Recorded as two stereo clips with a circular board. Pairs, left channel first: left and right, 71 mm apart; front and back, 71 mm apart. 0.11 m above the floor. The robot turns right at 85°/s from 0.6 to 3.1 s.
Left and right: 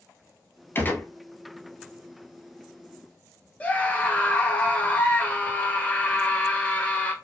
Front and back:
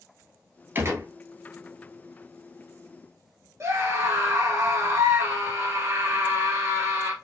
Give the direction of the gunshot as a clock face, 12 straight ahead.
8 o'clock.